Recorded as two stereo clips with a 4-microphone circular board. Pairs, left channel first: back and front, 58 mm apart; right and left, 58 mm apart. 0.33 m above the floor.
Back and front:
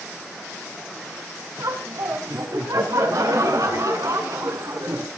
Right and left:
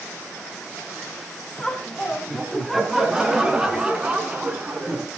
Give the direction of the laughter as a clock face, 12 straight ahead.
12 o'clock.